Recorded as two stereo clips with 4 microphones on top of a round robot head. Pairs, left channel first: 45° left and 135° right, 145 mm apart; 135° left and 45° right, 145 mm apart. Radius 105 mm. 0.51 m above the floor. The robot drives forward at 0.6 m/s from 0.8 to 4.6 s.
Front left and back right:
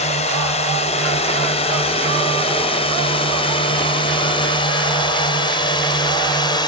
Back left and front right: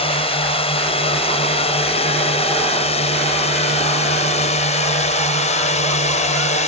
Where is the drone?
85° left; by 6.7 s 105° left.